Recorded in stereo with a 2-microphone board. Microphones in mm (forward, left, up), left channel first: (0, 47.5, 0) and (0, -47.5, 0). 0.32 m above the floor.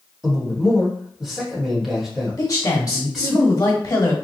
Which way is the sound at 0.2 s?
5° right (ahead or behind).